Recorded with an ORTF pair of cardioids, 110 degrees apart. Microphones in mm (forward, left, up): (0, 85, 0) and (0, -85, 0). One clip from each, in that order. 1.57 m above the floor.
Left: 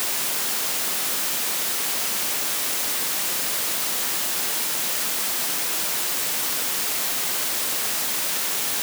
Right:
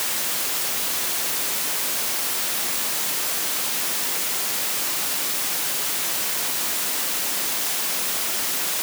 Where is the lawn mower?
No lawn mower in this recording.